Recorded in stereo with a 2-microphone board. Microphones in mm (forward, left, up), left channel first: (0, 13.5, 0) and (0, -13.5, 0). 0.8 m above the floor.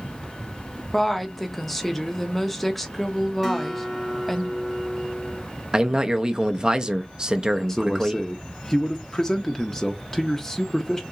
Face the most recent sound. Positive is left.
turn(degrees=20)  # may be behind; listen again after turning